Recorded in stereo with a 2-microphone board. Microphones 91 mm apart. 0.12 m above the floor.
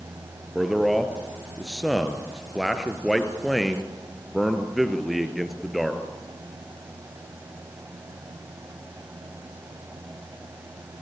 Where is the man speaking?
Centre (ahead or behind), 2 m.